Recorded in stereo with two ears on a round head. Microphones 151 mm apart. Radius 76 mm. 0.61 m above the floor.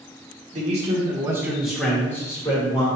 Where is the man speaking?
45° right (ahead or behind), 1.3 m; by 2.9 s 30° left (ahead or behind), 1.7 m.